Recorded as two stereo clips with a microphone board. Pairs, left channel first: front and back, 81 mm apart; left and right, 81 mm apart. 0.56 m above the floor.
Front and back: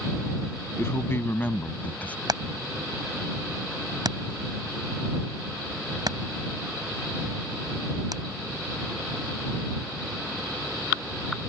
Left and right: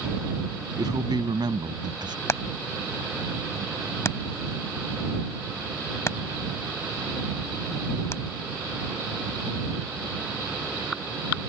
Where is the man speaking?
60° right; by 2.2 s 75° right.